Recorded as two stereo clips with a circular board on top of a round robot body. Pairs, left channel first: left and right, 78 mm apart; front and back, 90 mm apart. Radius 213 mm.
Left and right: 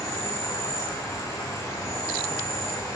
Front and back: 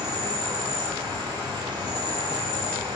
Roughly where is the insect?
Behind left.